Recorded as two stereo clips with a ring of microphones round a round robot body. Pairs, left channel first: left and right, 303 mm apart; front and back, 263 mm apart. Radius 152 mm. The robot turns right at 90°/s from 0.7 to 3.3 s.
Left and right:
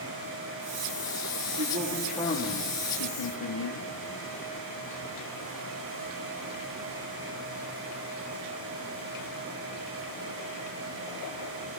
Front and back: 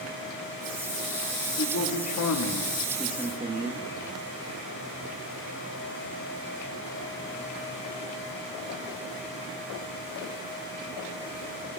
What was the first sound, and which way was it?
A man speaking, 45° right.